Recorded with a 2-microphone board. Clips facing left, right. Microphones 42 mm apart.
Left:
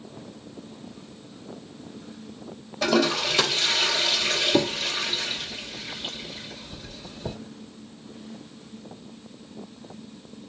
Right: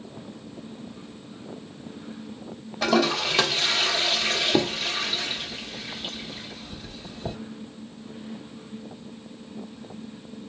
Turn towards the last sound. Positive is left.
turn(degrees=-10)  # may be behind; listen again after turning